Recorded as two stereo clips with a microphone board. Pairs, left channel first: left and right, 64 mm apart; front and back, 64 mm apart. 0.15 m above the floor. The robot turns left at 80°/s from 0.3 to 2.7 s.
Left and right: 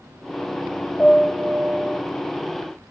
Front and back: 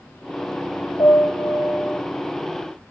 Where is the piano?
20° left, 2.5 m; by 2.0 s 60° right, 2.5 m.